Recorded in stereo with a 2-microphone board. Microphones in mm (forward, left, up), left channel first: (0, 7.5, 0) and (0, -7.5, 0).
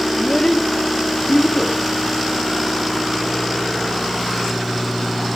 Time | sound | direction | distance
0.1 | a child speaking | 20° left (ahead or behind) | 0.7 m